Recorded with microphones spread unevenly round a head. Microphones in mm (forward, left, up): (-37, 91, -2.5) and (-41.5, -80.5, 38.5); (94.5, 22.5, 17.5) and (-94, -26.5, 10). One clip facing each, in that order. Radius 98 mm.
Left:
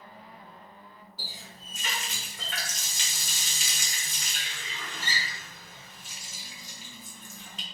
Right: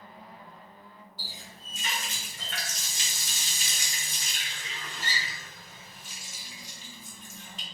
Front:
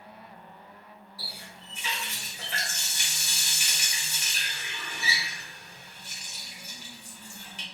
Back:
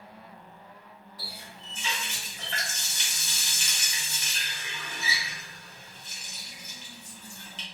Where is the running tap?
95° left, 1.0 m.